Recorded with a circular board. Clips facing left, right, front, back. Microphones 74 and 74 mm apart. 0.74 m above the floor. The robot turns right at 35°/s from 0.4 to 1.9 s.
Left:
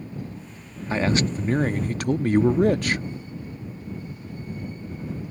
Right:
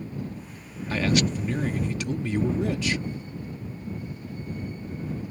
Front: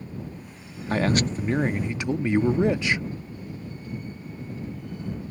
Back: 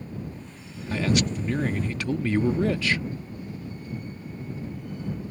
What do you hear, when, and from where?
0.9 s a man speaking: 30° left; by 3.0 s 65° left